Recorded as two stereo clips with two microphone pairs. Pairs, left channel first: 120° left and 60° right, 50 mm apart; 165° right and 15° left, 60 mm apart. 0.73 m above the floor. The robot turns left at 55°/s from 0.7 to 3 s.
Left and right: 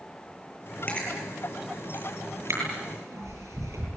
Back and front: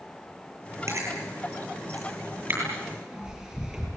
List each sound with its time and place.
0.9 s chewing: 60° left, 9.5 m; by 3.9 s 60° right, 9.5 m